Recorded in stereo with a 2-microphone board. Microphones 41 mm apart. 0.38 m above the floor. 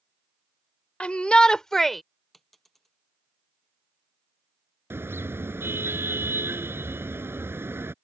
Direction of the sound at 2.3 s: 5° left (ahead or behind).